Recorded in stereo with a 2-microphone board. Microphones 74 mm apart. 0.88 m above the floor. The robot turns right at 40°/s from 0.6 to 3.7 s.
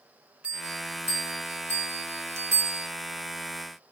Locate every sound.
0.4 s a bell: 15° right (ahead or behind), 1.0 m; by 2.9 s 30° right (ahead or behind), 1.0 m